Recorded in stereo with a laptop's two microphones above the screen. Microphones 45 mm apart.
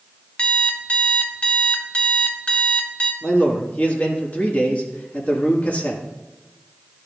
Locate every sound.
0.4 s an alarm clock: 25° left (ahead or behind), 0.6 m
3.2 s a man speaking: 35° left (ahead or behind), 1.7 m